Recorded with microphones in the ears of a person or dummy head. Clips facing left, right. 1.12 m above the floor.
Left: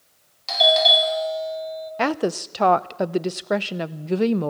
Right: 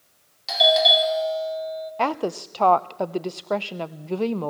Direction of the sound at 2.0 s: 20° left (ahead or behind).